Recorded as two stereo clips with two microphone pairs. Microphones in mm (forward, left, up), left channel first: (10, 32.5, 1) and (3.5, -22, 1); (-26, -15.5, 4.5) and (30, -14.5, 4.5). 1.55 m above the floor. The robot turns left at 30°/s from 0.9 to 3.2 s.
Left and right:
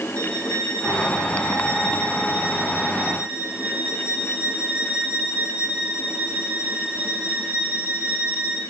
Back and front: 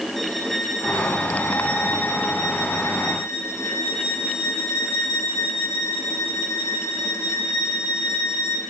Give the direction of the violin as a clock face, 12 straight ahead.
3 o'clock.